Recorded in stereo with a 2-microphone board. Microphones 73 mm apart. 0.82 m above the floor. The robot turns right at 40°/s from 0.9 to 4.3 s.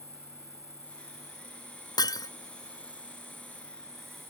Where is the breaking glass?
70° left (ahead or behind); by 2.3 s 65° left (ahead or behind).